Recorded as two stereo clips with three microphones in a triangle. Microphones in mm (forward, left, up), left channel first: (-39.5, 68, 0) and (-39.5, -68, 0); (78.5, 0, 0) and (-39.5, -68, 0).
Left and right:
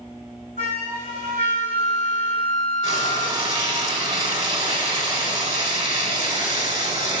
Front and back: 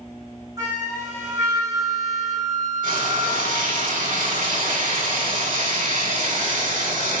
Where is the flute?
85° right, 3 m.